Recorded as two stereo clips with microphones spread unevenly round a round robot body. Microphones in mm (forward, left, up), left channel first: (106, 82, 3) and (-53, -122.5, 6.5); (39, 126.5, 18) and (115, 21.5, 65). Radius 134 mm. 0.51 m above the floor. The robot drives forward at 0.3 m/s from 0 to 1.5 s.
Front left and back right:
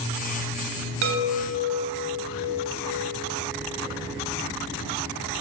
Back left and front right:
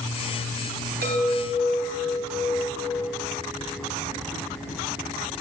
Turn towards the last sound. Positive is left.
turn(degrees=-95)